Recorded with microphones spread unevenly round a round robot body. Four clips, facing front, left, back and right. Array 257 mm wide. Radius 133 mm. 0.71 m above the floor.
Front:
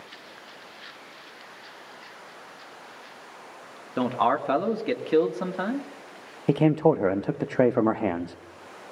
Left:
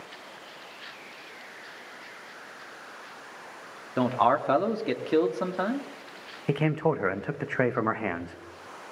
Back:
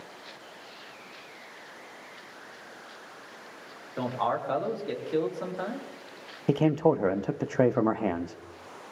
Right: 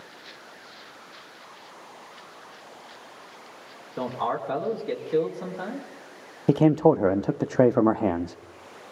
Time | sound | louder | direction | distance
4.0 | a man speaking | left 5 dB, front 5 dB | 45° left | 1.8 m
6.5 | a man speaking | right 8 dB, front 3 dB | 80° right | 0.6 m